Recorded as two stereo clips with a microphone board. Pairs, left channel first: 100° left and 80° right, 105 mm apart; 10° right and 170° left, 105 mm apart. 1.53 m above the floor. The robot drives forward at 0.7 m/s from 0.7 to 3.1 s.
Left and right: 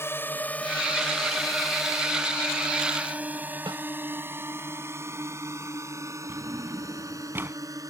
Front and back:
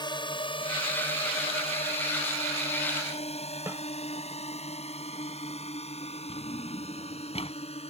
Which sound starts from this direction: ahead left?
A drone, at 0.0 s.